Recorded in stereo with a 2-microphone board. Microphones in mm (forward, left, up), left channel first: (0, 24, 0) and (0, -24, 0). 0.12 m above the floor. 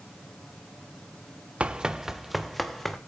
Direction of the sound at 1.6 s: 25° right (ahead or behind).